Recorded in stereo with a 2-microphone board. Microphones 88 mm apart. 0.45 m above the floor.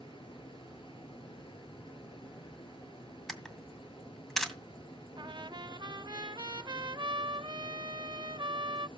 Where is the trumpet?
60° right (ahead or behind), 0.5 m.